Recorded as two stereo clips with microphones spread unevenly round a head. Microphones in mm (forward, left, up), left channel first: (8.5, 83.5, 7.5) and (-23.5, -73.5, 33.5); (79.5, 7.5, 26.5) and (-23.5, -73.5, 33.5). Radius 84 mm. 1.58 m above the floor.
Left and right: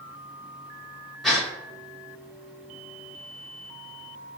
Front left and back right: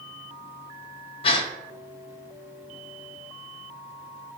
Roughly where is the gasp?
Ahead.